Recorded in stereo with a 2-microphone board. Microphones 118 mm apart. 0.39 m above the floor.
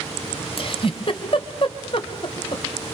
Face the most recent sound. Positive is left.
turn(degrees=50)  # may be behind; listen again after turning